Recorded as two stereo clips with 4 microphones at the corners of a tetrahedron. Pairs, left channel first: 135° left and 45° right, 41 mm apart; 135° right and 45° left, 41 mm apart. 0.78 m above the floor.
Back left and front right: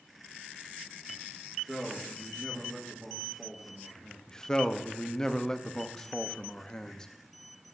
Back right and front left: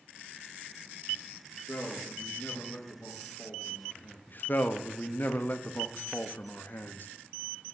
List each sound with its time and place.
1.4 s a man speaking: 125° right, 1.2 m
4.3 s a man speaking: 155° right, 0.6 m